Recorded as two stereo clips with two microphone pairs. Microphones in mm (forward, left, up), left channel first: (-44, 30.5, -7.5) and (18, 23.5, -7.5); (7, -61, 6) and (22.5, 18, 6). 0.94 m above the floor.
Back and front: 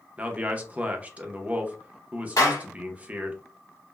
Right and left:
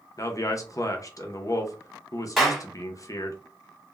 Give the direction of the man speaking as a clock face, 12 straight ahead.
2 o'clock.